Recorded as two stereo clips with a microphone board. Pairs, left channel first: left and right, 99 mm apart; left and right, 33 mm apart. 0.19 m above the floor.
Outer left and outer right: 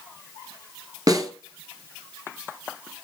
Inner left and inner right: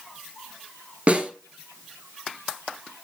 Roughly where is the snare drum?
Right.